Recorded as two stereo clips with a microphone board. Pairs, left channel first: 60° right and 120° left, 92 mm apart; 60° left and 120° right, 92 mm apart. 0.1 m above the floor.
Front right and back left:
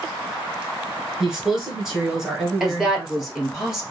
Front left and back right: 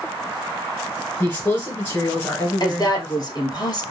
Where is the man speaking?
45° left, 1.3 m.